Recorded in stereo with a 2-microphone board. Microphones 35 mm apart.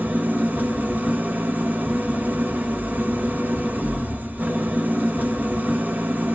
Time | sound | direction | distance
0.0 | an engine running | 55° right (ahead or behind) | 1.1 m